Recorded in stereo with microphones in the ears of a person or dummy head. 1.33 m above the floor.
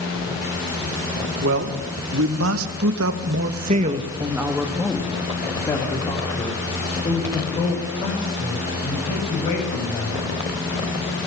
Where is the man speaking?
70° right (ahead or behind), 2.5 m; by 10.2 s 35° left (ahead or behind), 7.5 m.